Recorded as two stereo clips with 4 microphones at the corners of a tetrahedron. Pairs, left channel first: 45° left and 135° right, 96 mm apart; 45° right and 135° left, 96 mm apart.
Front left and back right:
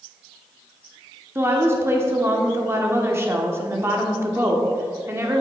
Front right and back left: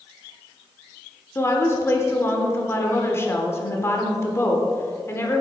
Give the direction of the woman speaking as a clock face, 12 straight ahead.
3 o'clock.